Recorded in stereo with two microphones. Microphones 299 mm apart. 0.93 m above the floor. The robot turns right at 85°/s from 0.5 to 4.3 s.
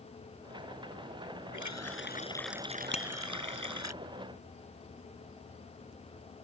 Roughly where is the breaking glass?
I don't hear breaking glass.